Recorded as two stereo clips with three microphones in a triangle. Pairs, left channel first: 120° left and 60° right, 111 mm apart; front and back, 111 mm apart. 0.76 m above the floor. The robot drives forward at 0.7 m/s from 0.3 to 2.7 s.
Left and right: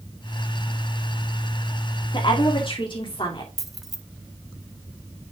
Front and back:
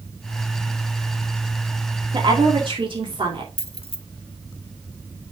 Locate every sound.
2.1 s a woman speaking: 145° left, 1.7 m; by 3.5 s 150° left, 2 m
3.6 s keys jangling: 30° left, 0.8 m